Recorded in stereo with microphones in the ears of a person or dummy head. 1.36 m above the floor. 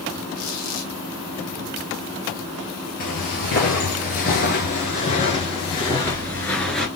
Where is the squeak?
75° left (ahead or behind), 2.5 m.